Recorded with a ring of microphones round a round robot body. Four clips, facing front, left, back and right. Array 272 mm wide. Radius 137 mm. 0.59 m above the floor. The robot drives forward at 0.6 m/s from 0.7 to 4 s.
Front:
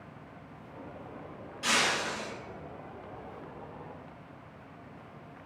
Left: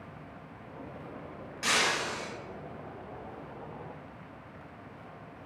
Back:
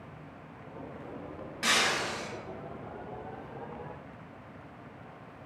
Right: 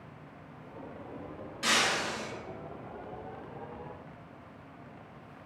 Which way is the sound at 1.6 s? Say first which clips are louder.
Even, even; 165° left.